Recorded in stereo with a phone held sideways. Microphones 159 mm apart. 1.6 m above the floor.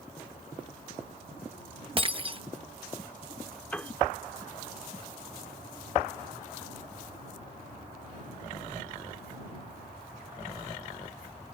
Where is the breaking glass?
35° right (ahead or behind).